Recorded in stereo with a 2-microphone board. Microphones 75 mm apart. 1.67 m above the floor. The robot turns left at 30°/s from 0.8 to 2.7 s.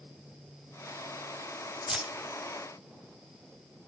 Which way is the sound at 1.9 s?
15° right (ahead or behind).